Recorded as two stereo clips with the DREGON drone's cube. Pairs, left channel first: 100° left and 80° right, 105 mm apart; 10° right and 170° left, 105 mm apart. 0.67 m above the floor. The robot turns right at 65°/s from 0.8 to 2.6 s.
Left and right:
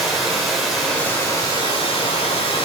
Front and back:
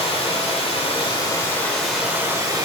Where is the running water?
10° left, 1.9 m; by 2.6 s 125° left, 1.9 m.